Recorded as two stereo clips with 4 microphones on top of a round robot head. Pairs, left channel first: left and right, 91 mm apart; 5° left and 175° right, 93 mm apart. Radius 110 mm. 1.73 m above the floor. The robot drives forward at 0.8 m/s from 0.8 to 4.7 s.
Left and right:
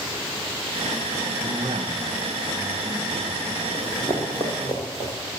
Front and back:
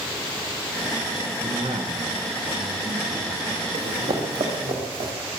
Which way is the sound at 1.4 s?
125° right.